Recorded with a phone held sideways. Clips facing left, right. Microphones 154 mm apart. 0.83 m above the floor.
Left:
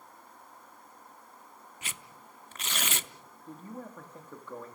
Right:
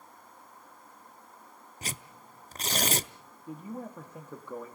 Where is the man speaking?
10° right (ahead or behind), 1.6 m.